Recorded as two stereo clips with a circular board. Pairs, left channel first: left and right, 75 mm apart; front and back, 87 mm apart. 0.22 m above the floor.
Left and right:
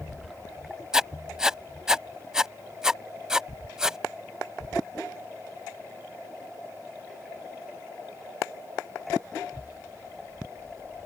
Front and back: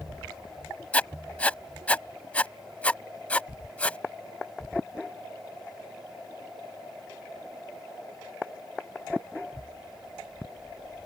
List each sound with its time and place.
0.9 s writing: 30° right